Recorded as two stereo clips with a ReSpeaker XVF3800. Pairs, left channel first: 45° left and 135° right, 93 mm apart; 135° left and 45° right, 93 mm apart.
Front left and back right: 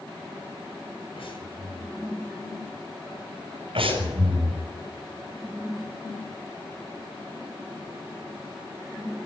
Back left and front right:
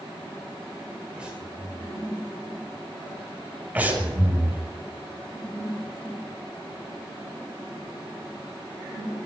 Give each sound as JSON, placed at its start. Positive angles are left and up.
{"t": 1.2, "sound": "breathing", "azimuth_deg": 35, "distance_m": 6.5}
{"t": 3.8, "sound": "breathing", "azimuth_deg": -120, "distance_m": 8.0}